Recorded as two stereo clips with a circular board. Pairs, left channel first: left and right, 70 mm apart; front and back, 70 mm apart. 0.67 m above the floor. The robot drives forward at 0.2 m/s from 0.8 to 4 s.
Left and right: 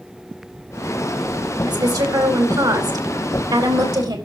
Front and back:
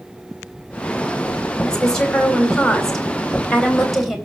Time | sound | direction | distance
1.6 | a woman speaking | 80° right | 4.5 m